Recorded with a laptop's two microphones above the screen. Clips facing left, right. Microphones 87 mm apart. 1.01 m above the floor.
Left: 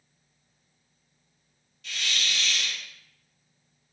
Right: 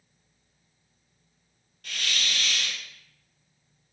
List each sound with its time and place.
1.8 s a hiss: 50° right (ahead or behind), 0.9 m